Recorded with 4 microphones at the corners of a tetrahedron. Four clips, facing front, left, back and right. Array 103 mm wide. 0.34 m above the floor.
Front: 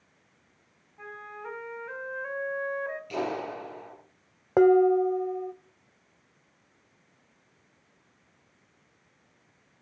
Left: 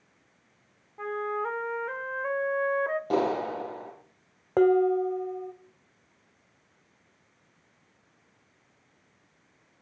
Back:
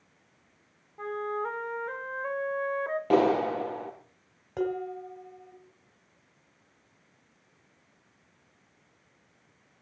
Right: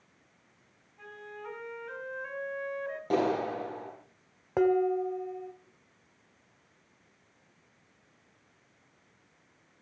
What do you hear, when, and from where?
1.0 s a flute: 120° left, 1.2 m
3.1 s a clap: straight behind, 5.5 m
4.6 s dishes clattering: 15° left, 1.1 m